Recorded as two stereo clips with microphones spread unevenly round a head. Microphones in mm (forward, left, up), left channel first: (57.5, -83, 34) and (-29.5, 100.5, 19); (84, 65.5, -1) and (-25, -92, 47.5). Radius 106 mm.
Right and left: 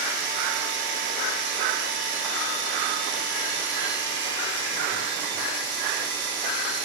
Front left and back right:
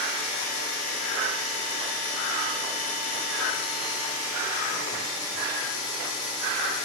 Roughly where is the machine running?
Left.